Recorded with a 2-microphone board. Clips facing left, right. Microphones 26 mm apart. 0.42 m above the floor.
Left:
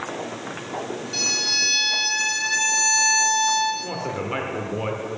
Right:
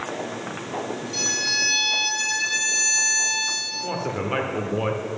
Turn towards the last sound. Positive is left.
turn(degrees=-5)  # may be behind; listen again after turning